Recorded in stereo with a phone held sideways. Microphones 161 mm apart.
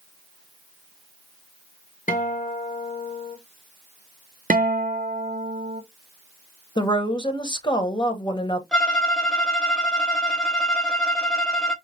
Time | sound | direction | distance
2.1 | a guitar | 55° left (ahead or behind) | 1.2 m
4.5 | a guitar | 60° right (ahead or behind) | 0.5 m
6.8 | a woman speaking | 30° left (ahead or behind) | 0.9 m
8.7 | a violin | 5° left (ahead or behind) | 0.7 m